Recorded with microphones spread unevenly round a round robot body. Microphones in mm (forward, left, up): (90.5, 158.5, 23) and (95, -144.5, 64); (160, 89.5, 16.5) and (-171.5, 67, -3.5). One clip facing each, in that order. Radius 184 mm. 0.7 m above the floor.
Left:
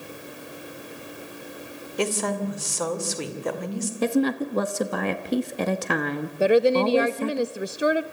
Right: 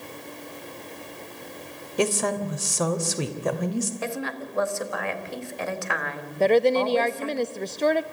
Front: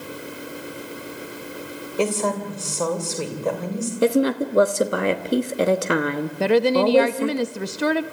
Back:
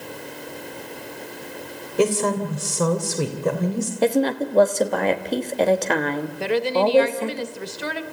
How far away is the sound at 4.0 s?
About 1.2 m.